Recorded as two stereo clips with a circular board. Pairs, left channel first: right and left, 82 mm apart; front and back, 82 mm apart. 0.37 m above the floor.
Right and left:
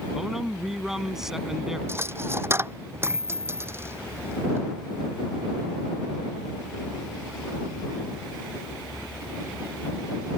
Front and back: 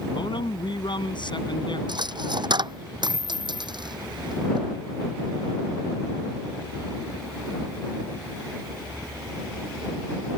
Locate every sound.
0.1 s a man speaking: 5° left
1.9 s a dropped coin: 150° left